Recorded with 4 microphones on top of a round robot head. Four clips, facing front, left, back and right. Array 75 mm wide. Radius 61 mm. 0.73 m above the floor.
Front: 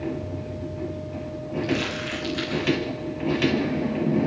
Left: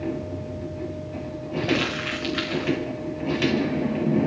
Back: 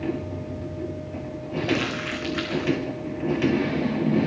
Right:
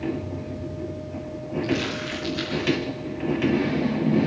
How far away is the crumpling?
About 4.5 m.